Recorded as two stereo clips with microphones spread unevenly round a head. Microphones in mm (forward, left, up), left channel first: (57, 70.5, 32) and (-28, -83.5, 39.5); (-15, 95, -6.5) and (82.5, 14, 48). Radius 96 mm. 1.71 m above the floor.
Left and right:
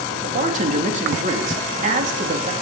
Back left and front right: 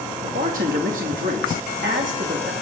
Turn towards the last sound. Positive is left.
turn(degrees=-70)